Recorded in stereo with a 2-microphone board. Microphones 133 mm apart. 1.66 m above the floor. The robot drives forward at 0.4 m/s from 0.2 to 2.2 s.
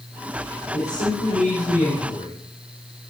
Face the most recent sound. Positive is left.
turn(degrees=85)